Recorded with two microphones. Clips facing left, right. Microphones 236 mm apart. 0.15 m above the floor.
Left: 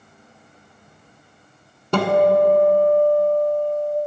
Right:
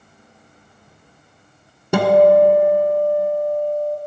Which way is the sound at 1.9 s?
10° right (ahead or behind).